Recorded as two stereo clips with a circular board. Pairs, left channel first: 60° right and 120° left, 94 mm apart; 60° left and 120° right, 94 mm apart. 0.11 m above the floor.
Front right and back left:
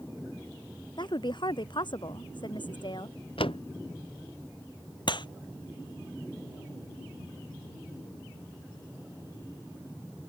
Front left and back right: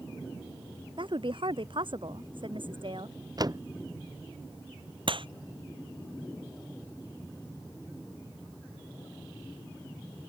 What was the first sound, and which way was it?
A woman speaking, 90° right.